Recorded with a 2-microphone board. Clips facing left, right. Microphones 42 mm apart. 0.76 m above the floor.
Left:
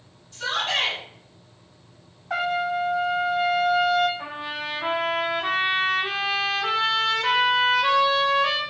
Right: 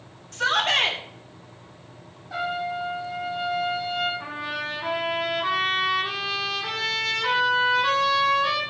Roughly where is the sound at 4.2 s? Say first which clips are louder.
Right 1 dB; left.